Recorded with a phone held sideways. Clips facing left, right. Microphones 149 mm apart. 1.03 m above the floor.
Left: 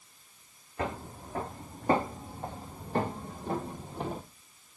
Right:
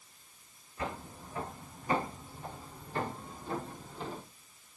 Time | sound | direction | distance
0.8 | footsteps | 65° left (ahead or behind) | 4 m